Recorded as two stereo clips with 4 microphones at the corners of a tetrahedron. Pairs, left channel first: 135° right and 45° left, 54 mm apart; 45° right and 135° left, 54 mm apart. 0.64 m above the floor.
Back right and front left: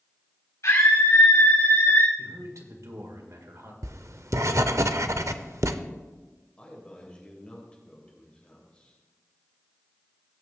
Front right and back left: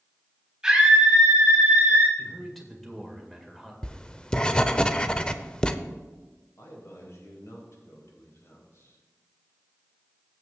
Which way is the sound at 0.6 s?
150° right.